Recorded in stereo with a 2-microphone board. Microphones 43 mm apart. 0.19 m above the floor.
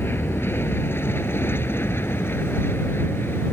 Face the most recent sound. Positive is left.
turn(degrees=60)  # may be behind; listen again after turning